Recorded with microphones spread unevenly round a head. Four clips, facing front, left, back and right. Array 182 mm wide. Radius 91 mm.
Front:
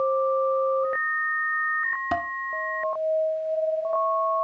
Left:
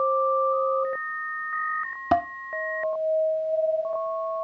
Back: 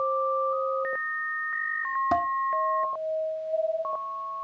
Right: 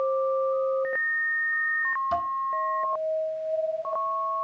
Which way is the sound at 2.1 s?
95° left.